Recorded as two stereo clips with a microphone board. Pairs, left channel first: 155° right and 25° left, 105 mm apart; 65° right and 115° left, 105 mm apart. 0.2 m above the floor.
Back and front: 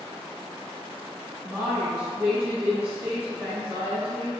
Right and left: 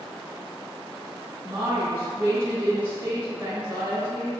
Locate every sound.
1.4 s a woman speaking: 85° left, 1.0 m